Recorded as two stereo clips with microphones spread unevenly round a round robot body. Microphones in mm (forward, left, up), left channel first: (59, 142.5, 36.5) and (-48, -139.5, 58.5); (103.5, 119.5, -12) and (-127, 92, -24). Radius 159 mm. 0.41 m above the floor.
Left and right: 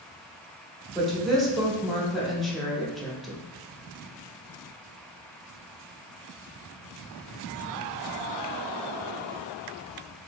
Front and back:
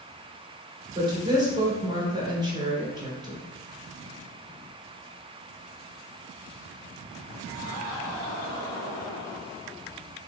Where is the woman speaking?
150° left, 0.9 m.